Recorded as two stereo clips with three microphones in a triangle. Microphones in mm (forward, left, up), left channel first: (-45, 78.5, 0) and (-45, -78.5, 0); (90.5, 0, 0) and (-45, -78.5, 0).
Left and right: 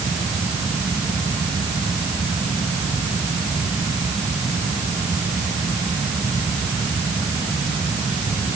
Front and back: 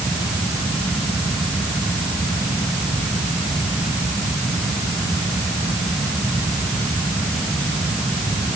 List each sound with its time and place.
Only background noise.